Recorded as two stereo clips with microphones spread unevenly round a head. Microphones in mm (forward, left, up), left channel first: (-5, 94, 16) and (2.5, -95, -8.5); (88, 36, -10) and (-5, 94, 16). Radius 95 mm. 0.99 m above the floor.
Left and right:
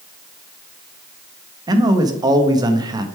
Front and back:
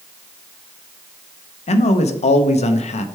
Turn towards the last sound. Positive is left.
turn(degrees=-20)